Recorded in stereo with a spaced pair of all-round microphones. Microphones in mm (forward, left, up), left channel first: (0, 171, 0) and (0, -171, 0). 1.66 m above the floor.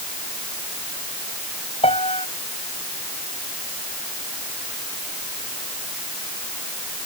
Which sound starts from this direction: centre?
A piano, at 1.8 s.